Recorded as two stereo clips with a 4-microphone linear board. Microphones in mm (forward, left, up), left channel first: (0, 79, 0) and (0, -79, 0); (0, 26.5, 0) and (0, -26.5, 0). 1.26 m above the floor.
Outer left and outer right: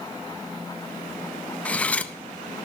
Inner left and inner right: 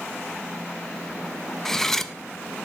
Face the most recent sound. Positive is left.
turn(degrees=10)  # may be behind; listen again after turning